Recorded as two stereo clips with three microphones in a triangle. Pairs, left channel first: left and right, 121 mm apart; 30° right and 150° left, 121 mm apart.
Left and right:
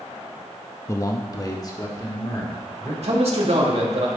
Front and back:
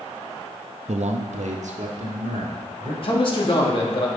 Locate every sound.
0.9 s a man speaking: 150° left, 0.5 m; by 2.9 s 145° left, 2.5 m
3.0 s a man speaking: 70° right, 1.8 m